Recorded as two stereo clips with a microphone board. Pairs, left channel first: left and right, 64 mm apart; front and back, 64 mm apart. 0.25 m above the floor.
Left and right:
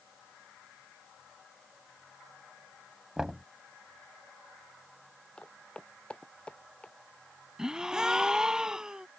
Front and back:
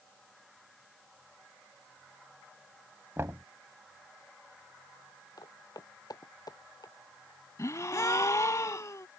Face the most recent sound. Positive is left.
turn(degrees=-15)